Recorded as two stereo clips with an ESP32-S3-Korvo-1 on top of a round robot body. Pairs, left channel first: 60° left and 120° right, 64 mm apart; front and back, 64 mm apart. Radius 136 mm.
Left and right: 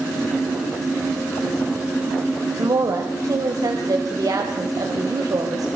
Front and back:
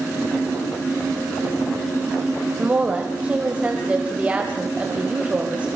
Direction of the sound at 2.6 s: 110° right.